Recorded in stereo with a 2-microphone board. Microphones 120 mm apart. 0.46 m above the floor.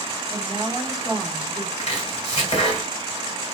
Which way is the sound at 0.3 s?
35° left (ahead or behind).